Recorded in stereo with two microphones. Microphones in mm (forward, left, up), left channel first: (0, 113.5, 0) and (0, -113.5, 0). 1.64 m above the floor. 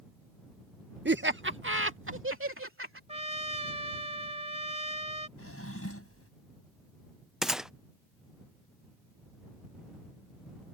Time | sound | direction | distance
1.1 | laughter | 50° right (ahead or behind) | ?
3.1 | a trumpet | 30° right (ahead or behind) | ?
5.4 | a drawer | 75° left (ahead or behind) | ?
7.4 | a gunshot | centre (ahead or behind) | ?